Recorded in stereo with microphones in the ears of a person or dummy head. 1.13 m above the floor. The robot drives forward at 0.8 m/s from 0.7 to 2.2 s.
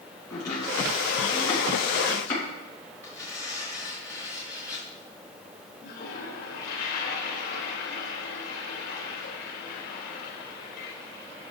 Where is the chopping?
15° left (ahead or behind), 7.5 m; by 2.4 s 10° left (ahead or behind), 8.5 m.